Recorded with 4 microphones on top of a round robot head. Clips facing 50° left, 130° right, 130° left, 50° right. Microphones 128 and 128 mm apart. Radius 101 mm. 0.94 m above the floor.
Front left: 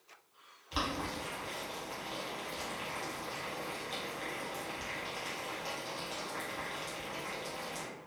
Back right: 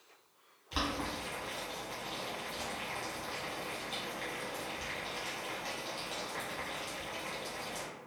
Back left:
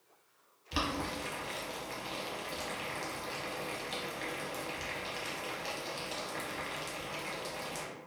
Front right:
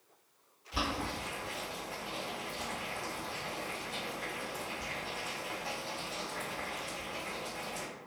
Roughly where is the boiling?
Behind left.